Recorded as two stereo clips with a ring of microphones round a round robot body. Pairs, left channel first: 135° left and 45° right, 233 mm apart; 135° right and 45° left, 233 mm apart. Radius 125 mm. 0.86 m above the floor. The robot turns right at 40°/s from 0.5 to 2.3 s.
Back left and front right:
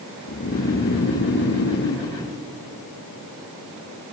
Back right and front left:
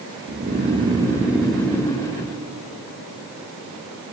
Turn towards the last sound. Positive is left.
turn(degrees=170)